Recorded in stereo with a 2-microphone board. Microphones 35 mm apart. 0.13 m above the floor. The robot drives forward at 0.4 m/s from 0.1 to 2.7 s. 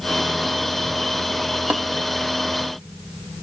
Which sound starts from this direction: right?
Tapping, at 1.7 s.